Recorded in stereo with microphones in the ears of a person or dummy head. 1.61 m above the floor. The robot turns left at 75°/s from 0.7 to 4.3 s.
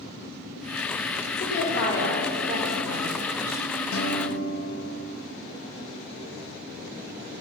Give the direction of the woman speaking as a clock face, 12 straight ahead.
10 o'clock.